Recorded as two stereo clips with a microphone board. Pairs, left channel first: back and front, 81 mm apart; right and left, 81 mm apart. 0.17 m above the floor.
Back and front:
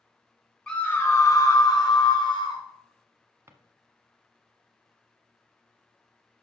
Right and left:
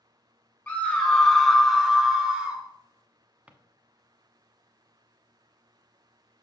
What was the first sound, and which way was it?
A scream, 115° right.